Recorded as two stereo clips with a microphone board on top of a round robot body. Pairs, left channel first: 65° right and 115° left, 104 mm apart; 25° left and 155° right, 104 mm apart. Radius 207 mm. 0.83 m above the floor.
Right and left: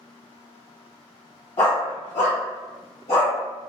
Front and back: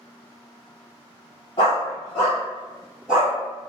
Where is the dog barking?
25° right, 0.9 m; by 3.3 s 80° right, 1.9 m.